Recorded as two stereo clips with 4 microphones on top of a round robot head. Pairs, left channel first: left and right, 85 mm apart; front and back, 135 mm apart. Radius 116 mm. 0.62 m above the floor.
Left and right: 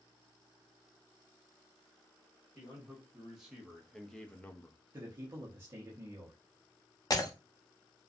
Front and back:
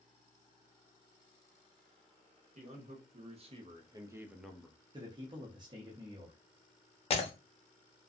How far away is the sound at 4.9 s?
About 0.7 m.